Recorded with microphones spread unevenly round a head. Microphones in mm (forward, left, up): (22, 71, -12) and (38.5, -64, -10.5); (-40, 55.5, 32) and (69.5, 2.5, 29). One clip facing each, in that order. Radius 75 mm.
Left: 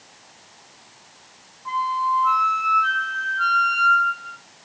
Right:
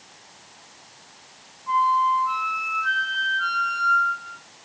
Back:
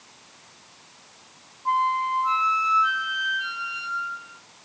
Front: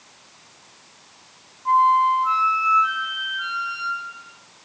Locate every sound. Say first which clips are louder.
1.6 s a flute: right 3 dB, front 7 dB; 95° left, 3.5 m